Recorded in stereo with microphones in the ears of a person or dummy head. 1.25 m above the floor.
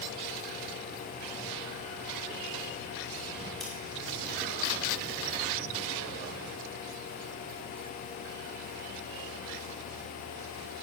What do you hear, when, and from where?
3.6 s scissors: 5° left (ahead or behind), 1.9 m